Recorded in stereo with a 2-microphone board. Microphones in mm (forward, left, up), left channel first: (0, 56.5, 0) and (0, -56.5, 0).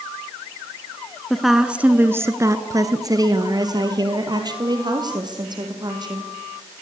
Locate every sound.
1.3 s a woman speaking: centre (ahead or behind), 1.2 m; by 6.3 s 40° right (ahead or behind), 4.5 m